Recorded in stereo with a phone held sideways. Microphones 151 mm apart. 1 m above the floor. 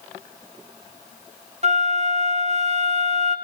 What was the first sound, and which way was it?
A flute, 50° right (ahead or behind).